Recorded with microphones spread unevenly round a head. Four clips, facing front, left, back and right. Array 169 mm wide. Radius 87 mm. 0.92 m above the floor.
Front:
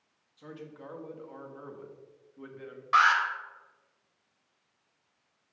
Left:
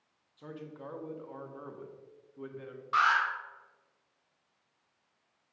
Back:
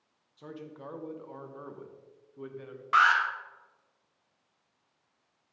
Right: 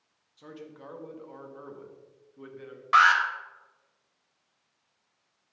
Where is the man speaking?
160° left, 1.0 m.